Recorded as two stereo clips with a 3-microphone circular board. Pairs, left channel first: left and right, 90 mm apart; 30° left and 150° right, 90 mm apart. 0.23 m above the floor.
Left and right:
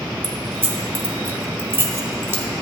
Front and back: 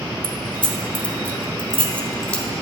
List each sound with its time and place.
0.2 s keys jangling: 40° right, 0.8 m